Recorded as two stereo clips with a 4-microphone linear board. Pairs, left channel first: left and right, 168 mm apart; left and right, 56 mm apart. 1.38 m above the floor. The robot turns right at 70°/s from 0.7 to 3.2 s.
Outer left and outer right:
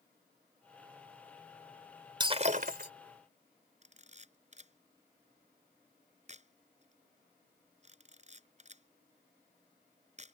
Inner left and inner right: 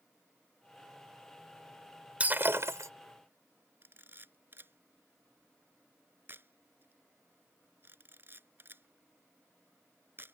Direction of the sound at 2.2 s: 155° right.